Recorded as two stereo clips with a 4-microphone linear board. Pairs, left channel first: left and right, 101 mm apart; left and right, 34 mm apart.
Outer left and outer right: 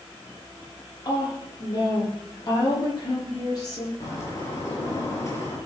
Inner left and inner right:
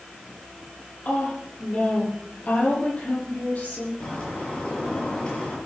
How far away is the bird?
About 6.5 m.